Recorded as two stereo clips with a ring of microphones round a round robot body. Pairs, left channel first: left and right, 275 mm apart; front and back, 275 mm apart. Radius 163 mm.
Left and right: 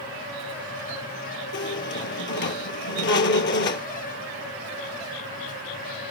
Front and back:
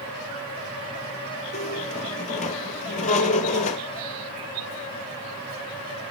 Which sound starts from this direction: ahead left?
A squeak, at 1.5 s.